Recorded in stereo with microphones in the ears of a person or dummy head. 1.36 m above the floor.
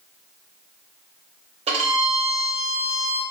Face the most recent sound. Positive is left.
turn(degrees=-25)  # may be behind; listen again after turning